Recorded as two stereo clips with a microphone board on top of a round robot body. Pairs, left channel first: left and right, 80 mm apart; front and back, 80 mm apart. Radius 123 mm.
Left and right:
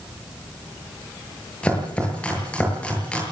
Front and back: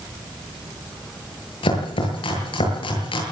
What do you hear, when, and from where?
1.6 s chopping: 15° left, 8 m